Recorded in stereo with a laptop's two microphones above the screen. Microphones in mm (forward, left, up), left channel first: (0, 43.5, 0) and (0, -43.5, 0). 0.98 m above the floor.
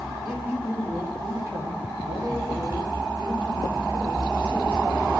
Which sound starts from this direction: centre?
A man speaking, at 0.2 s.